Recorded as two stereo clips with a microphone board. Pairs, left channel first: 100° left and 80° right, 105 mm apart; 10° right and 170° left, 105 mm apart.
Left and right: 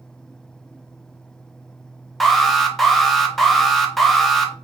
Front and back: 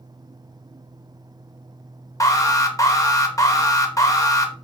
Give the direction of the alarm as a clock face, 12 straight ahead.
12 o'clock.